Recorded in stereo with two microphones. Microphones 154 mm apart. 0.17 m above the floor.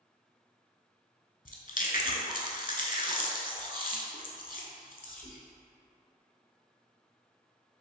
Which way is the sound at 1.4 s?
65° left (ahead or behind).